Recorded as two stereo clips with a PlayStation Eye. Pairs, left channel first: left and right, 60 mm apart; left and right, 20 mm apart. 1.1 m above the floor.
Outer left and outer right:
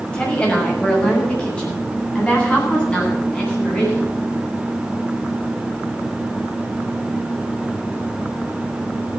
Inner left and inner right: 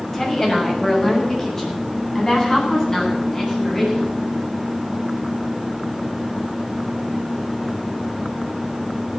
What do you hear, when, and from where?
0.1 s a woman speaking: 15° left (ahead or behind), 6.5 m